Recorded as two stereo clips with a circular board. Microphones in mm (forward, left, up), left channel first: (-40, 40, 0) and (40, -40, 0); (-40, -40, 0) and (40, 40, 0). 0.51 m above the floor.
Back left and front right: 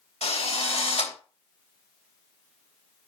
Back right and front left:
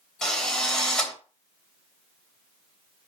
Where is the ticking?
No ticking in this recording.